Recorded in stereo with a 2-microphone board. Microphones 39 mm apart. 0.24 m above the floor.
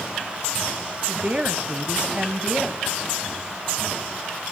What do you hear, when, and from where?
1.1 s a woman speaking: 25° right (ahead or behind), 1.6 m